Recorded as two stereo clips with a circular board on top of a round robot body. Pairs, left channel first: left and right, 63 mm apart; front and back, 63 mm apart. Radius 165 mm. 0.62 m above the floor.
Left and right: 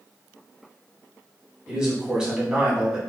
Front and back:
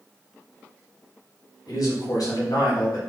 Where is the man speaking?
15° right, 2 m.